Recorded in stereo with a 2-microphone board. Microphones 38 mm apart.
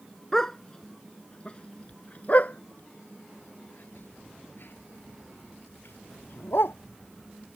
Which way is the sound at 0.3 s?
10° left (ahead or behind).